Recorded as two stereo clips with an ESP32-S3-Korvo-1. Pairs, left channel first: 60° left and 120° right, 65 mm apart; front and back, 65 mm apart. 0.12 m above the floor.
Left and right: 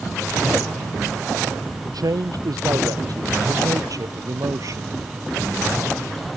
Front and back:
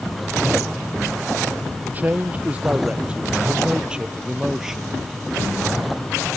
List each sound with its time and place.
1.8 s a man speaking: 115° right; by 5.0 s 95° right